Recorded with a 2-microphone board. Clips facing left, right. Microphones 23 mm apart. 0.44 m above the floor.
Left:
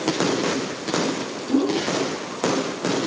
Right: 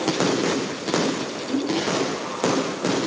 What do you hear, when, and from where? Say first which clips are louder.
1.5 s a whoosh: left 3 dB; 60° left (ahead or behind), 2.5 m